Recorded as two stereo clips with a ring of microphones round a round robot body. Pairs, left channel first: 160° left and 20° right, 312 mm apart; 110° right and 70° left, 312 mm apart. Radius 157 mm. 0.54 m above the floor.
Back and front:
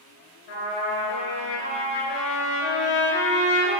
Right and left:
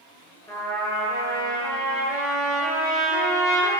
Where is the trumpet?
165° left, 5 m.